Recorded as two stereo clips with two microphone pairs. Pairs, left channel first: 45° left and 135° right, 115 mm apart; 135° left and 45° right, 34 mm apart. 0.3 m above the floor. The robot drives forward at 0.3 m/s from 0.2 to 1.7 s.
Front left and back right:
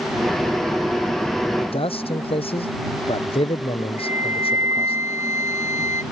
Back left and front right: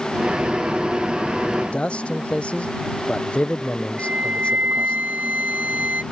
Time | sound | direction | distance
1.6 | a man speaking | 80° left | ?
4.0 | a flute | 70° right | ?